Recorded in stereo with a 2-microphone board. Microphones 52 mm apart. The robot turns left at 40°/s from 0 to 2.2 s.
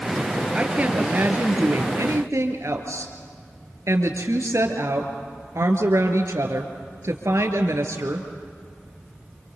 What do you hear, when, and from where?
0.5 s a woman speaking: 25° right, 3 m; by 8.3 s 90° right, 3 m